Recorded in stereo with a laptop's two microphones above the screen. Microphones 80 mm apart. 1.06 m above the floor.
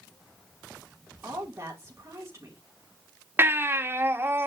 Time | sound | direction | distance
1.2 | a woman speaking | 35° right (ahead or behind) | 3.5 m
3.4 | a baby crying | 25° right (ahead or behind) | 1.6 m